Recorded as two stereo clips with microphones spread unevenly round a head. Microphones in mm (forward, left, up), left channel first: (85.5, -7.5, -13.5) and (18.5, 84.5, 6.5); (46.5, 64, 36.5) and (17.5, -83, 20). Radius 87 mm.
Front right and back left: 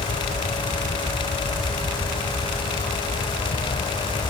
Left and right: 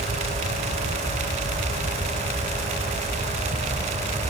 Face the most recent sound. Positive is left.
No sound to turn to.